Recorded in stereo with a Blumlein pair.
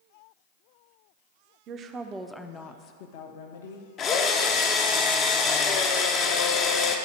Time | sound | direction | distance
1.7 | a woman speaking | 35° right | 0.6 m
4.0 | a drill | 30° left | 0.6 m